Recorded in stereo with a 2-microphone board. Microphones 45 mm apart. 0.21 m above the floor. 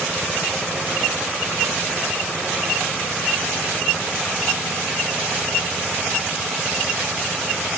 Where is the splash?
I don't hear a splash.